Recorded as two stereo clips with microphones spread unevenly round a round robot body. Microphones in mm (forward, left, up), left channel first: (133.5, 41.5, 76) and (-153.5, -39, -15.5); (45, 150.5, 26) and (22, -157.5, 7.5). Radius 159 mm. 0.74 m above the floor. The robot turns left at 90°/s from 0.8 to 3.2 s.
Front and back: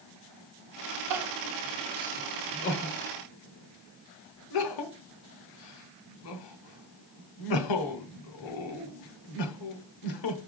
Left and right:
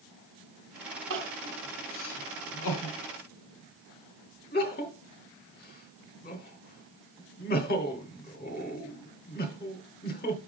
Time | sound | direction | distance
1.1 | crying | 145° right | 1.2 m